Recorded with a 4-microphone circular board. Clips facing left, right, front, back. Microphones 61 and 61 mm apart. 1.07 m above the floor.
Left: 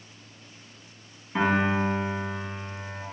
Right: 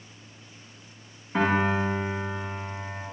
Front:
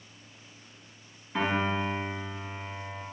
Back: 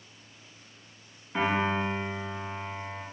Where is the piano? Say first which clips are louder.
Even, back 1 dB; 110° right, 2.5 m.